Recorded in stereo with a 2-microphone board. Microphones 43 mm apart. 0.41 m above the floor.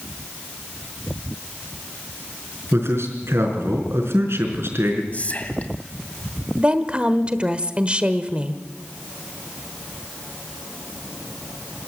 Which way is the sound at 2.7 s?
80° right.